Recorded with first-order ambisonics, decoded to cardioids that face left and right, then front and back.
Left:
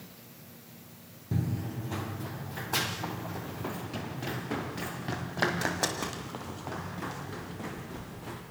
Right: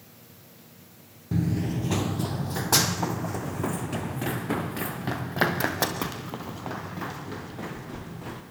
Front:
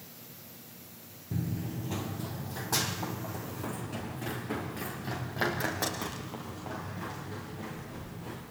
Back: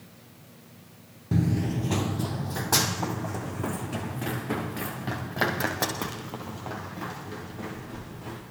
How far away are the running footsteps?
About 0.5 m.